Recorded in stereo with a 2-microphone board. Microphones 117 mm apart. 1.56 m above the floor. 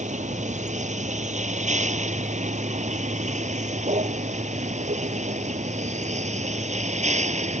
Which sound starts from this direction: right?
A vehicle, at 0.0 s.